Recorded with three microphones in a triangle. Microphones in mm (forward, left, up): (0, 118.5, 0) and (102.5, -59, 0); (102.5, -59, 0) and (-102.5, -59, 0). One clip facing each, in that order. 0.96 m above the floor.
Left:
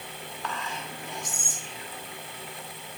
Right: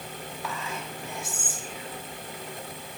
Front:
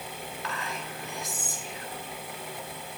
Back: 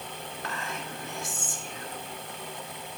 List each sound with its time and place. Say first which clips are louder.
0.4 s whispering: even, even; 140° right, 2 m